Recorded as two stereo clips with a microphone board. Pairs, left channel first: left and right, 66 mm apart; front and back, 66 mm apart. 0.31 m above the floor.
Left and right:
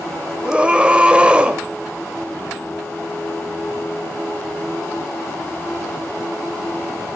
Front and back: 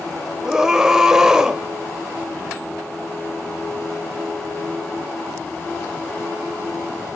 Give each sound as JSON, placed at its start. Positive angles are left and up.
{"t": 0.4, "sound": "a scream", "azimuth_deg": -120, "distance_m": 1.0}